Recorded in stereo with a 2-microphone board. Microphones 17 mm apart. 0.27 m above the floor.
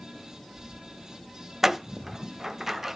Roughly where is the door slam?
Right.